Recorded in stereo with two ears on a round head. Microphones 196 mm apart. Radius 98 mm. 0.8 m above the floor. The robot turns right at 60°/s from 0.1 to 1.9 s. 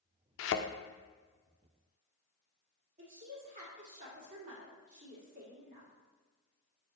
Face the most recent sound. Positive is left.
turn(degrees=-35)  # may be behind; listen again after turning